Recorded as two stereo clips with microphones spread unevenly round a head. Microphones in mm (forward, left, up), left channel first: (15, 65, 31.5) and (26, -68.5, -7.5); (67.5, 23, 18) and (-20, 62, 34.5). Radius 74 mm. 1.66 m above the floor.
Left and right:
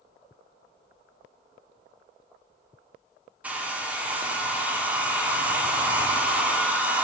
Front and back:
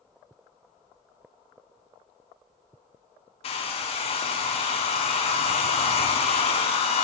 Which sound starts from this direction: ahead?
A hair dryer, at 3.4 s.